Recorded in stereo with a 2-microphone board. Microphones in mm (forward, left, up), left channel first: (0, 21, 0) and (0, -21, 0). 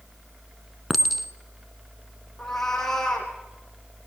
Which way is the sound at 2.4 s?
5° left (ahead or behind).